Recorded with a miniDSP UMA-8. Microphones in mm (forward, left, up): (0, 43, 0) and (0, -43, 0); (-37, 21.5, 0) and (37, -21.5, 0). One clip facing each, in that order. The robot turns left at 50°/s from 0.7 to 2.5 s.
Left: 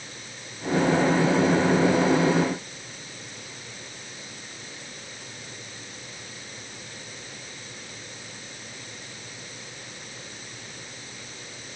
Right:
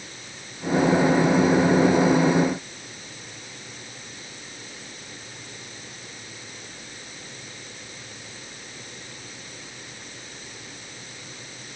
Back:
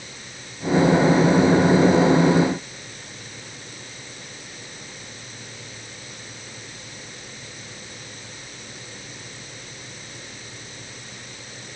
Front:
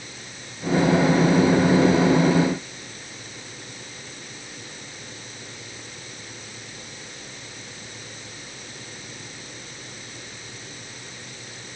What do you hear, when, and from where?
Only background noise.